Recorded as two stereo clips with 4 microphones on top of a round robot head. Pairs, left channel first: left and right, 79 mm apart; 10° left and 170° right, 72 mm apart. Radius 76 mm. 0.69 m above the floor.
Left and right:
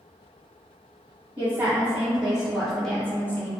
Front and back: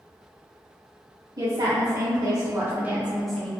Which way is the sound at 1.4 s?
160° right.